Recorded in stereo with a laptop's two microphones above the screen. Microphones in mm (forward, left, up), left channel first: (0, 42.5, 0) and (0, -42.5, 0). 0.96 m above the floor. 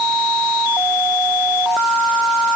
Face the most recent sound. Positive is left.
No sound to turn to.